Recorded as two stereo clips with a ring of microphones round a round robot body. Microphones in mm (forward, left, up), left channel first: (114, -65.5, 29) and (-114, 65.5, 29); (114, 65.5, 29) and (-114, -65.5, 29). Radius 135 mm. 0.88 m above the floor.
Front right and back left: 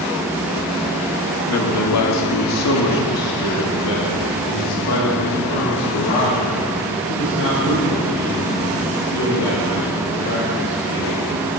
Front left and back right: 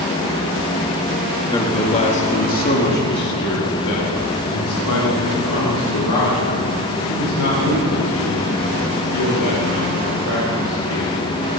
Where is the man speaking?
45° right, 1.9 m; by 11.3 s 20° left, 6 m.